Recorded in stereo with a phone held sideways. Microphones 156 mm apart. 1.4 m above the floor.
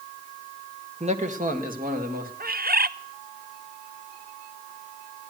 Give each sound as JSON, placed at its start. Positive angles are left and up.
{"t": 1.0, "sound": "a man speaking", "side_deg": -40, "distance_m": 1.4}
{"t": 2.4, "sound": "a bird", "side_deg": -70, "distance_m": 0.5}